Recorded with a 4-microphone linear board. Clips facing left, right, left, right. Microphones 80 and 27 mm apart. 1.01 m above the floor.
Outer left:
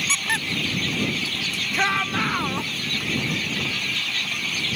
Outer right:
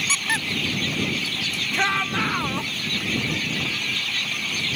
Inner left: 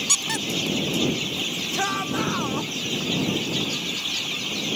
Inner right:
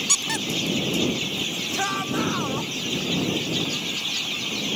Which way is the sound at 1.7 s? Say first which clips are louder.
Even, even; centre (ahead or behind).